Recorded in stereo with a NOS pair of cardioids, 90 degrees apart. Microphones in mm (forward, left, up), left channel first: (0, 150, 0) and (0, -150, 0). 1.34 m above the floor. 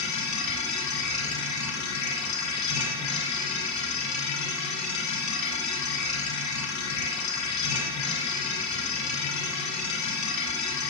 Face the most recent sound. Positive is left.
turn(degrees=70)